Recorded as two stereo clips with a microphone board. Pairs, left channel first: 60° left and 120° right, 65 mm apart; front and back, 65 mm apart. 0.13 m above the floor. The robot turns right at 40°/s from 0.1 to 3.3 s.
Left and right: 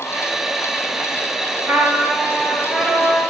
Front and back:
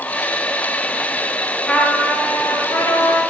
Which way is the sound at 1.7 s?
75° right.